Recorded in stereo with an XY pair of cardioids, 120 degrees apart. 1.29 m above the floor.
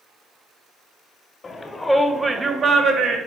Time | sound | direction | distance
1.4 | a shout | 30° left | 0.9 m